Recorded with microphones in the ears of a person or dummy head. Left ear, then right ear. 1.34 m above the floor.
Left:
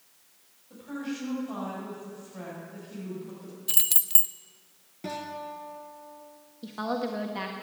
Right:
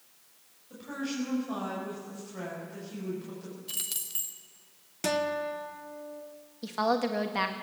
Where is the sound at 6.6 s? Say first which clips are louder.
Right 4 dB; 25° right (ahead or behind), 1.6 m.